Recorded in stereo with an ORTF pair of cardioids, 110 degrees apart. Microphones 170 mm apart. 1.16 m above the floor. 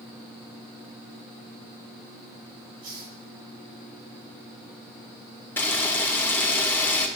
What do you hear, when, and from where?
2.8 s a hiss: 65° right, 5 m
5.6 s a camera shutter: 15° left, 2.5 m